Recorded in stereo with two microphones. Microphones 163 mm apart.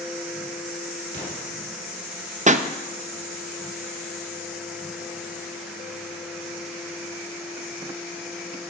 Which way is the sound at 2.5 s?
45° right (ahead or behind).